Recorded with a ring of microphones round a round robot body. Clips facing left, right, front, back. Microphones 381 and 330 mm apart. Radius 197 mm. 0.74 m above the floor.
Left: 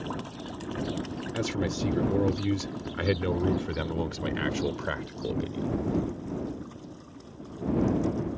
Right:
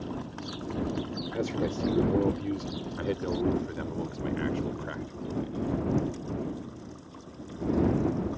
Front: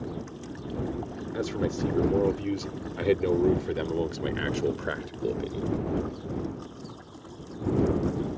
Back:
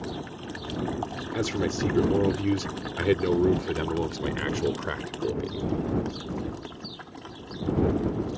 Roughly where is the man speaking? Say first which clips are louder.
Even, back 2 dB; behind left.